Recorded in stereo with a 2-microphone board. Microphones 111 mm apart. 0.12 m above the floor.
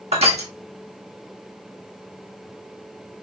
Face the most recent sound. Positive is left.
turn(degrees=-75)  # may be behind; listen again after turning